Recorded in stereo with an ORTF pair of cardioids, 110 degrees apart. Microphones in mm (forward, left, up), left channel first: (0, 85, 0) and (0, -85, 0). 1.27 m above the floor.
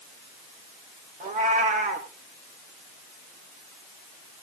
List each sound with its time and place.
1.2 s a cat meowing: 50° right, 3 m